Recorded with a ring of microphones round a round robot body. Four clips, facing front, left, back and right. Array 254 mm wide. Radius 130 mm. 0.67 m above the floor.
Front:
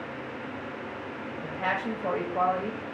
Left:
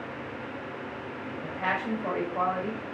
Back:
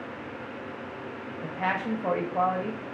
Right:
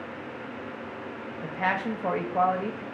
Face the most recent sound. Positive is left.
turn(degrees=-115)